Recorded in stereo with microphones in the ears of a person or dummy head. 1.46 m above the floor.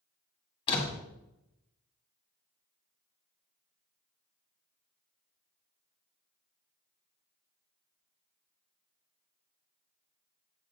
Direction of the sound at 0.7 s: 30° left (ahead or behind).